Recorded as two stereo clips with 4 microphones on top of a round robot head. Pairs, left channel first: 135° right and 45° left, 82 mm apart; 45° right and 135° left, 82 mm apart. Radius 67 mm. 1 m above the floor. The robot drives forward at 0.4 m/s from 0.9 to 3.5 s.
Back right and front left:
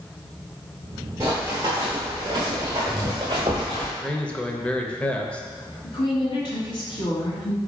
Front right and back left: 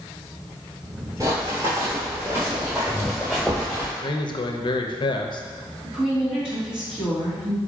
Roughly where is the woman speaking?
Behind right.